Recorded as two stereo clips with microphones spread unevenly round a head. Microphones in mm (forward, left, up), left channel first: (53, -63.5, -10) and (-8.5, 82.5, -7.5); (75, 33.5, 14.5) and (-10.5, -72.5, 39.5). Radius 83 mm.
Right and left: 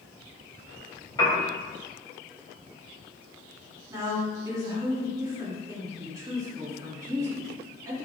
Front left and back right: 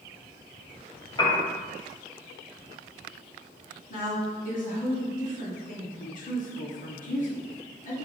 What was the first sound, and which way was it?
A piano, straight ahead.